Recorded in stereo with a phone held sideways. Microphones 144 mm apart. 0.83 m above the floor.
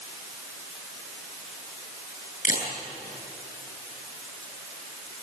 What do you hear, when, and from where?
2.5 s a camera shutter: 65° left (ahead or behind), 8 m